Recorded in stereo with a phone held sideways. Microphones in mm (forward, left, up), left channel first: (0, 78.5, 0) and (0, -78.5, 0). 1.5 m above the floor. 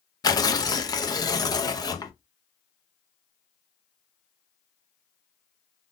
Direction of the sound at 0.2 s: 25° left (ahead or behind).